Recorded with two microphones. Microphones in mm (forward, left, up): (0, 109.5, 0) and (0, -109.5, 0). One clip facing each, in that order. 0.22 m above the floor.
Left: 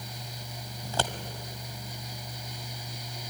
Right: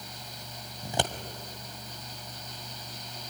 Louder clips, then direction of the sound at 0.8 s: Right 1 dB; 20° right (ahead or behind).